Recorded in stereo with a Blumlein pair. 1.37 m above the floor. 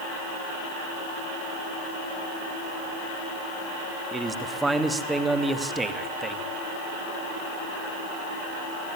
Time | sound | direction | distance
4.1 | a man speaking | 10° right | 2.5 m